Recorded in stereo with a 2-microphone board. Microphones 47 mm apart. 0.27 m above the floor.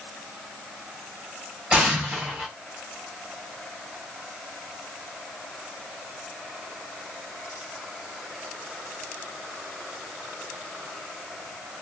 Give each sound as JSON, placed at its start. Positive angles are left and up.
{"t": 1.7, "sound": "an explosion", "side_deg": -25, "distance_m": 1.5}